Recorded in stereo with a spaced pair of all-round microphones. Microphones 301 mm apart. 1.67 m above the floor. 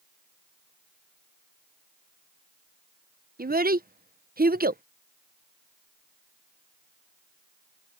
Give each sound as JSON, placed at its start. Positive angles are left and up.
{"t": 3.4, "sound": "a child speaking", "side_deg": -30}